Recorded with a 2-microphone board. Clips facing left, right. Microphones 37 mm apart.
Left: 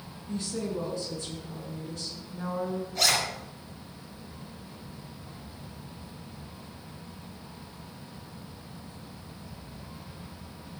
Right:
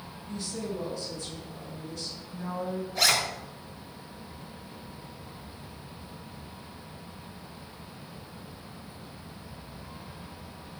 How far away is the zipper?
About 4 m.